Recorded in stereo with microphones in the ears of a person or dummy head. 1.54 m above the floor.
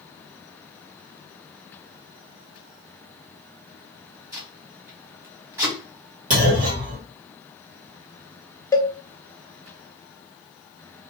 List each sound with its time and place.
4.3 s tape being pulled: 25° right (ahead or behind), 1.2 m
6.3 s a clunk: 55° right (ahead or behind), 2 m
8.7 s a cowbell: 15° left (ahead or behind), 0.5 m